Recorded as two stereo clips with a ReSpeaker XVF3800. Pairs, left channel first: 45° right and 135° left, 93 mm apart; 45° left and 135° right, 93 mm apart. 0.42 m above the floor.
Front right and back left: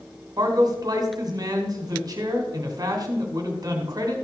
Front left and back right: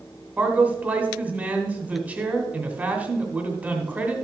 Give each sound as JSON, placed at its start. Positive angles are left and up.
{"t": 0.4, "sound": "a man speaking", "azimuth_deg": 155, "distance_m": 1.9}